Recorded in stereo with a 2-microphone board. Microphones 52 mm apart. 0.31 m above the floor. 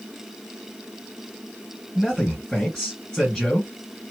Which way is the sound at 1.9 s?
15° left (ahead or behind).